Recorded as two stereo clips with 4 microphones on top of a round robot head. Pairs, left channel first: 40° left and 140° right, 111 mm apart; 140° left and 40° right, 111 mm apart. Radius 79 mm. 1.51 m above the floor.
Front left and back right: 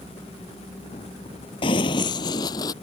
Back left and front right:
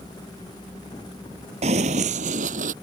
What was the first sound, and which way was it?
Running footsteps, 5° right.